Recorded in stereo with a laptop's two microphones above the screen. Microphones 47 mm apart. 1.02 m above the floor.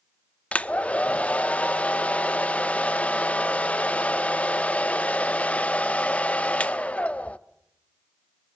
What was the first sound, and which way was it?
A hair dryer, 30° left (ahead or behind).